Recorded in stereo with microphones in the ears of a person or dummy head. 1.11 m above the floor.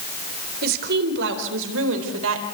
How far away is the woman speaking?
About 3.5 m.